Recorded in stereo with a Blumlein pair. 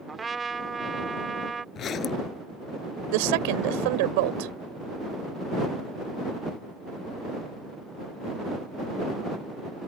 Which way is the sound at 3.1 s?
50° right.